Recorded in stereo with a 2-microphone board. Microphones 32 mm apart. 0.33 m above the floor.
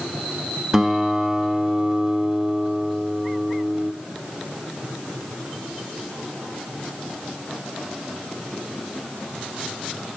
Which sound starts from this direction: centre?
A guitar, at 0.7 s.